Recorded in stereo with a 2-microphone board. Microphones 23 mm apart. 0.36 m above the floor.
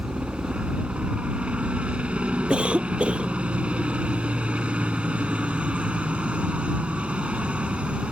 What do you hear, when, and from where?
0.0 s a helicopter: 60° right (ahead or behind)
2.5 s a cough: 65° right (ahead or behind)